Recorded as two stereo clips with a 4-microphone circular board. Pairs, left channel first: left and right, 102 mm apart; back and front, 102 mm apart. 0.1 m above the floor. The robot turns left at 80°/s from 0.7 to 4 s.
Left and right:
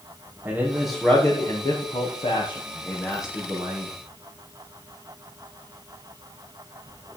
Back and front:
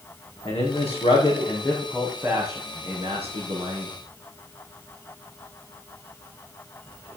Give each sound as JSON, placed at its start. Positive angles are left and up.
{"t": 0.5, "sound": "a man speaking", "azimuth_deg": -165, "distance_m": 4.0}